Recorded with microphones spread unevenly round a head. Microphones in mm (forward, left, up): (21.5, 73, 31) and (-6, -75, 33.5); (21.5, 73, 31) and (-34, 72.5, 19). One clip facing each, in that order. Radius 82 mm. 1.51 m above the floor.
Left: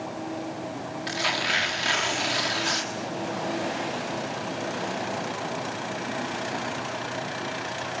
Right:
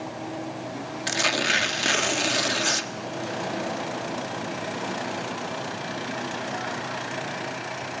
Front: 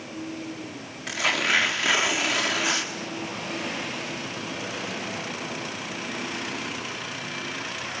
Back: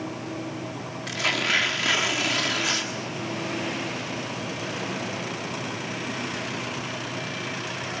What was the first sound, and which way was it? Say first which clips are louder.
Tearing paper: right 4 dB, front 1 dB; 70° right.